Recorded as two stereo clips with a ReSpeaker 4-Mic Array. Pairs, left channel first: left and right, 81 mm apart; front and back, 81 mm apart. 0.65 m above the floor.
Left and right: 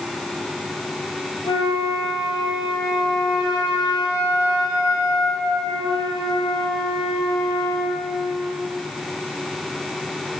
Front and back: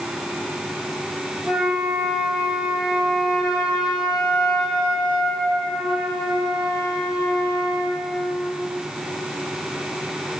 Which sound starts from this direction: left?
A flute, at 1.4 s.